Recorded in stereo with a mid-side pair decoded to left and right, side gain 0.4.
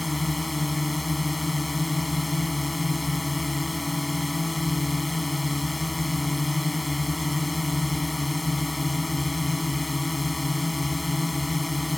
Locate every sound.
0.0 s a drone: 10° left